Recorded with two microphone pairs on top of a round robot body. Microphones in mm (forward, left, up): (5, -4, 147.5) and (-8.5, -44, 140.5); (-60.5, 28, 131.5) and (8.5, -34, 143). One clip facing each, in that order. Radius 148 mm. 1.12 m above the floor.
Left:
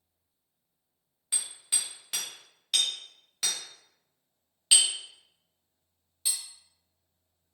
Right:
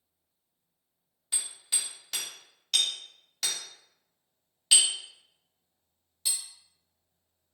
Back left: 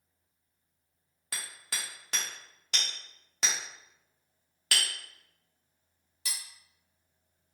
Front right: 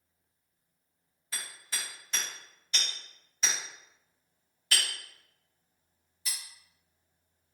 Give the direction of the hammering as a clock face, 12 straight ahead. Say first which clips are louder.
Even, even; 7 o'clock.